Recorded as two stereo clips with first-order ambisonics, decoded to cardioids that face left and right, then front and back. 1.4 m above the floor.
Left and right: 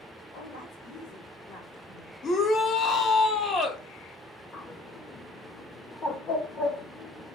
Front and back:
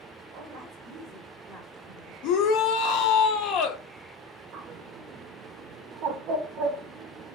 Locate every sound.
0.3 s a woman speaking: 130° left, 1.1 m; by 2.1 s 85° left, 1.9 m
2.2 s a shout: 25° left, 0.6 m
4.5 s a bird: 150° left, 0.6 m